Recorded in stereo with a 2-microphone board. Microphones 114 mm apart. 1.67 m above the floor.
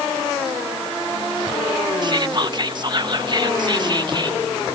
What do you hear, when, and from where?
2.0 s whispering: 40° right (ahead or behind)